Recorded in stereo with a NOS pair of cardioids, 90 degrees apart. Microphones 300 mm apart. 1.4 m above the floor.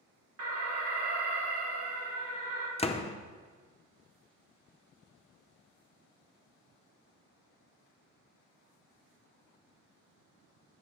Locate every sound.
0.4 s an alarm: 50° right, 1.6 m
2.8 s a door slam: 20° left, 0.5 m